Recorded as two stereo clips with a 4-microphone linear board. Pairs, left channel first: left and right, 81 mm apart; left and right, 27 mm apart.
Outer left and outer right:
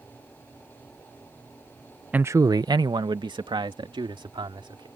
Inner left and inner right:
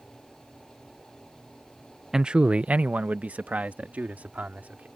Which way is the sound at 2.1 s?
20° right (ahead or behind).